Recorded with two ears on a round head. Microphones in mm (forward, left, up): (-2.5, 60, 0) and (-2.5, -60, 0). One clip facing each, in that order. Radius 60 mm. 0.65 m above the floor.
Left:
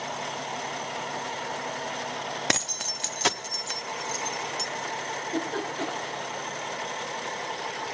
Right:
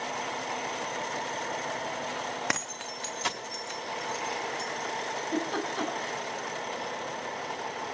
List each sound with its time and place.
2.5 s keys jangling: 30° left (ahead or behind), 0.5 m; by 4.7 s 75° left (ahead or behind), 1.8 m
5.1 s a giggle: 80° right, 5 m